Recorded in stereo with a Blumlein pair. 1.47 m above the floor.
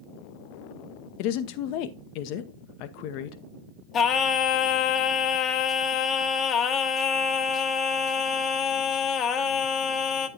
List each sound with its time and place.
1.2 s a woman speaking: 45° left, 0.7 m
3.9 s singing: 25° left, 0.9 m